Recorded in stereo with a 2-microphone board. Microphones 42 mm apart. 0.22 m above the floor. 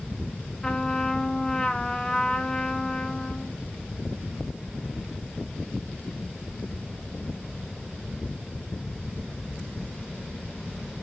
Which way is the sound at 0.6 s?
15° left (ahead or behind).